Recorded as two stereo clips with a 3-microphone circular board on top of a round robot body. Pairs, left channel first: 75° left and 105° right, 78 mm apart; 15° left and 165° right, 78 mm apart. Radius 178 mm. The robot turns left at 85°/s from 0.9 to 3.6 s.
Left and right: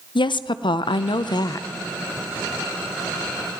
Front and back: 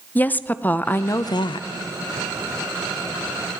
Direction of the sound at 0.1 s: 85° left.